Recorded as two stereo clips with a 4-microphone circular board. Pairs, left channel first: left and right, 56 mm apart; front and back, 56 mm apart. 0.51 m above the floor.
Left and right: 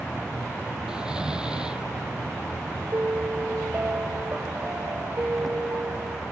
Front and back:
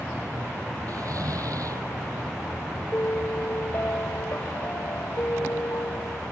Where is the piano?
40° right.